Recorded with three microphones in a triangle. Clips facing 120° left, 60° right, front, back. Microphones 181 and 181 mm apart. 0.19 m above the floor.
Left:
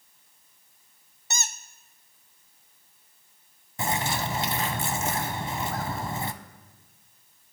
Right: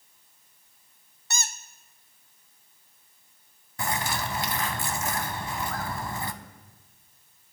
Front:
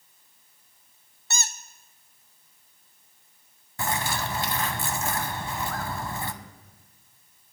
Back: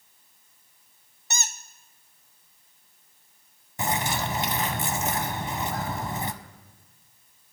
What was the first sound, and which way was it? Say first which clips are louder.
A squeak: even, even; 145° left.